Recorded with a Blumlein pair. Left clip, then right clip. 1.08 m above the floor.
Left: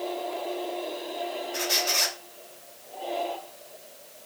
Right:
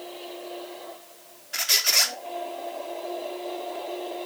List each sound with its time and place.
1.5 s a squeak: 45° right, 0.5 m